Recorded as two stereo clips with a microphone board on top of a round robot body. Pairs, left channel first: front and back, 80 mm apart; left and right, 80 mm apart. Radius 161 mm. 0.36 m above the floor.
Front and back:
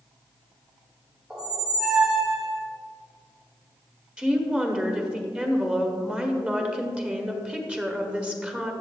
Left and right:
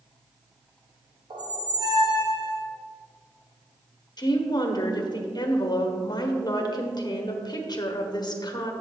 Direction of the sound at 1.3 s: 100° right.